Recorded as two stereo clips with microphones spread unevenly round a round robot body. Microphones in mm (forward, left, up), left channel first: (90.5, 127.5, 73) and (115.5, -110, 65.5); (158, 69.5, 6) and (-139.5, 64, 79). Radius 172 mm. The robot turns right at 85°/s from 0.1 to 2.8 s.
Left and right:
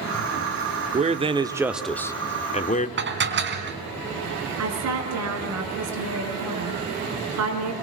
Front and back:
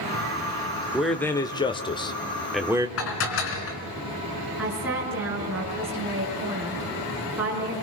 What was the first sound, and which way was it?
A man speaking, 75° right.